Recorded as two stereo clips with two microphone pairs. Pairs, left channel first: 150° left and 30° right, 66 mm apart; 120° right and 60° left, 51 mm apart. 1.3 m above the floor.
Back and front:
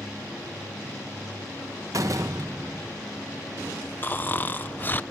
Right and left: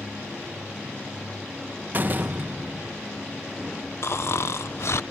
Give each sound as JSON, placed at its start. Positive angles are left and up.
{"t": 1.9, "sound": "a door slam", "azimuth_deg": 10}
{"t": 4.0, "sound": "snoring", "azimuth_deg": -150}